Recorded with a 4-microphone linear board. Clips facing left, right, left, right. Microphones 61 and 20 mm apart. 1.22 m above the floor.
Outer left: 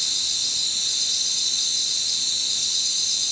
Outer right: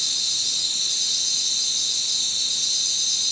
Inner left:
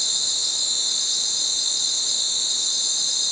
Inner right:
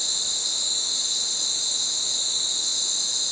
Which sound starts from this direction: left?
An insect, at 0.0 s.